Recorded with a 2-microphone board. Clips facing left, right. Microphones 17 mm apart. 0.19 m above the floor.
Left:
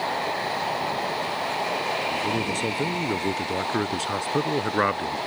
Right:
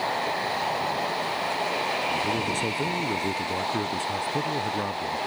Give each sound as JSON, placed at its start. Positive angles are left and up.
{"t": 2.1, "sound": "a man speaking", "side_deg": 5}